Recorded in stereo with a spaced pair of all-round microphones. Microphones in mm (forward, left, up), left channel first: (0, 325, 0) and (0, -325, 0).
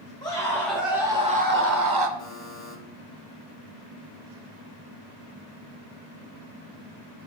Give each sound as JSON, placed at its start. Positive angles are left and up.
{"t": 0.2, "sound": "a scream", "side_deg": 5, "distance_m": 1.8}
{"t": 2.2, "sound": "a buzzer", "side_deg": 60, "distance_m": 2.5}